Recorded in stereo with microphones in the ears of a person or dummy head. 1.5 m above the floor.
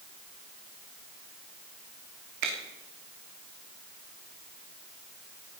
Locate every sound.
2.4 s a finger snap: 60° right (ahead or behind), 3 m